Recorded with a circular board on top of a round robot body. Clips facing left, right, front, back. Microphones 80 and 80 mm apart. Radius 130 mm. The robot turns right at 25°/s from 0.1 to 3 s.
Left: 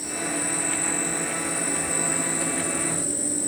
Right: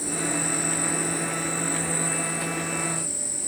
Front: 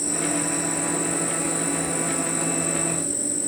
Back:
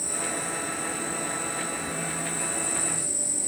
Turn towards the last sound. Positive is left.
turn(degrees=40)